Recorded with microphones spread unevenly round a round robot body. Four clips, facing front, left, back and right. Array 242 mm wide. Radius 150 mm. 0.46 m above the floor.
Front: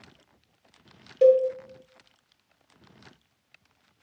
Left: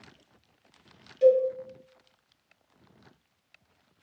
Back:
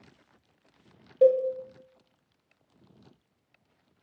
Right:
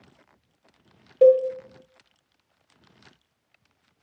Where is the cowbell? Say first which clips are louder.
Right 5 dB, front 3 dB; 80° right, 0.7 m.